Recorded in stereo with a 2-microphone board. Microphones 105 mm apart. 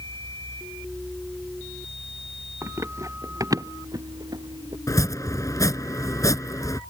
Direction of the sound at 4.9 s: 30° left (ahead or behind).